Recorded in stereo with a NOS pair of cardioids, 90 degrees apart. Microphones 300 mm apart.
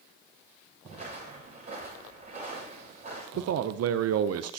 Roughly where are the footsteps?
Ahead right.